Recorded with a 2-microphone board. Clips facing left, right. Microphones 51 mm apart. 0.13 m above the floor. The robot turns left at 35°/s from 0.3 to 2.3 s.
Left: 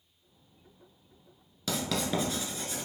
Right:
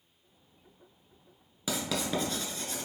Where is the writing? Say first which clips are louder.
Left 1 dB; 10° right (ahead or behind), 0.8 m; by 2.9 s 5° left (ahead or behind), 0.8 m.